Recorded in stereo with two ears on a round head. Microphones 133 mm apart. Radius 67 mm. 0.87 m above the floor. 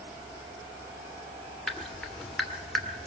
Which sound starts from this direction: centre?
Dripping, at 1.7 s.